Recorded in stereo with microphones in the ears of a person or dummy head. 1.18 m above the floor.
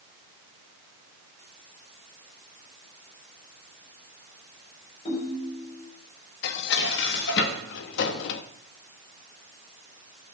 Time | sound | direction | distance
5.0 | a ringtone | 35° left (ahead or behind) | 5 m
6.4 | dishes clattering | 65° left (ahead or behind) | 1.3 m